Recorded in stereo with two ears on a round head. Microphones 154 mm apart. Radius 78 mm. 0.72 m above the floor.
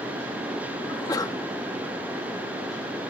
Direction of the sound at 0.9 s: 20° left (ahead or behind).